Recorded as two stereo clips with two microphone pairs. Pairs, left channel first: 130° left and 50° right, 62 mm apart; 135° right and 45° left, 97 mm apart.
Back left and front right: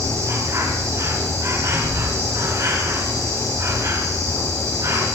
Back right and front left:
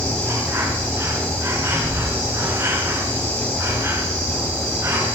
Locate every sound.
0.0 s an insect: 20° right, 6 m